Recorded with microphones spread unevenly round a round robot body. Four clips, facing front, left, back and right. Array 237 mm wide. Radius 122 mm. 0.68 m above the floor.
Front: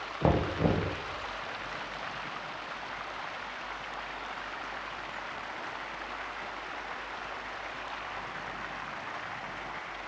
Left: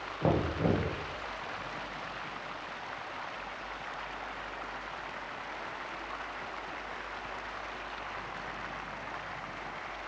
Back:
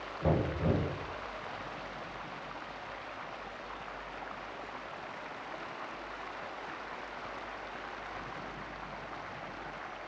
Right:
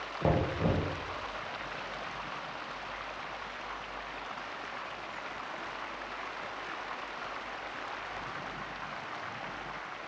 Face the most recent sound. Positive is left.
turn(degrees=5)